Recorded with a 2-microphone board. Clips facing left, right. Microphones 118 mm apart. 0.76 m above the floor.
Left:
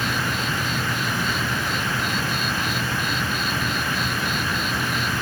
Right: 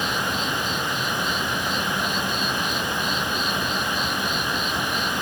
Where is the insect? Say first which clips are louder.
Even; 70° left (ahead or behind), 1.7 m.